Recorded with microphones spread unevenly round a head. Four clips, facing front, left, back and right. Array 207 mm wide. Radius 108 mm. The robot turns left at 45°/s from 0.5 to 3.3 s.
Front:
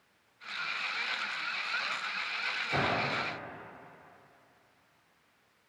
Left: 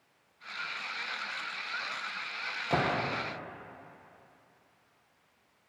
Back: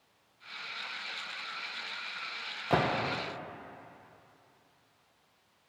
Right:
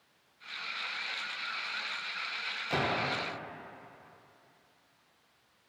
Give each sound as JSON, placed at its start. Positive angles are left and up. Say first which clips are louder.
{"t": 2.7, "sound": "a gunshot", "louder": "left 2 dB, back 3 dB", "azimuth_deg": 160, "distance_m": 1.4}